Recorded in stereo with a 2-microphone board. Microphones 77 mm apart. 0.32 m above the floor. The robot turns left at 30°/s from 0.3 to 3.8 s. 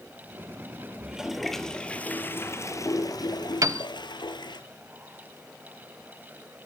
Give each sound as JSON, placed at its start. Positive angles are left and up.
{"t": 1.0, "sound": "a toilet flushing", "azimuth_deg": -170, "distance_m": 1.7}
{"t": 3.6, "sound": "a piano", "side_deg": -45, "distance_m": 0.8}